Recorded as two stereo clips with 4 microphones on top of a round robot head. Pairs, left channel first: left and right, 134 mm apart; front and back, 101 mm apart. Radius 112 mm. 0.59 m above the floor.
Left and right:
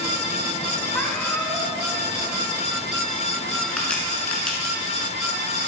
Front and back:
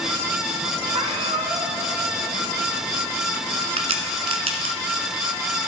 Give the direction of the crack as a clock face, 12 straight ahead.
6 o'clock.